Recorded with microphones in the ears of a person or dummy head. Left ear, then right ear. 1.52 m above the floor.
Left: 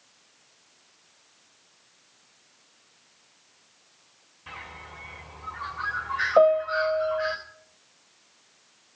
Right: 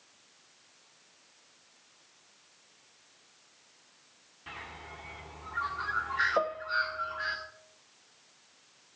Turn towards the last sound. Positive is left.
turn(degrees=20)  # may be behind; listen again after turning